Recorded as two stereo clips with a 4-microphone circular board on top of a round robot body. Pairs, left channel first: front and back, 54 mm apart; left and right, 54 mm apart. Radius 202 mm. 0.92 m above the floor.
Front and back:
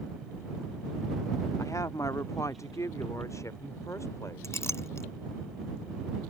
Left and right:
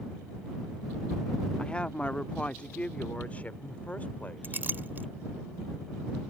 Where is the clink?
35° right.